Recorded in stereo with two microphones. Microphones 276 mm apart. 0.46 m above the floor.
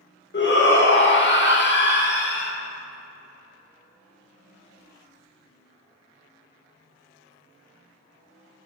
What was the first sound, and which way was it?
A shout, 40° left (ahead or behind).